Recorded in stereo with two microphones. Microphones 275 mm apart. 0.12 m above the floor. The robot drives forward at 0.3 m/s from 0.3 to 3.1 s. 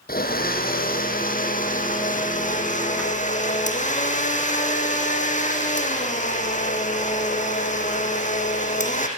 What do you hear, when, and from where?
0.1 s a blender: 35° left (ahead or behind), 3.5 m; by 9.1 s 25° left (ahead or behind), 4.5 m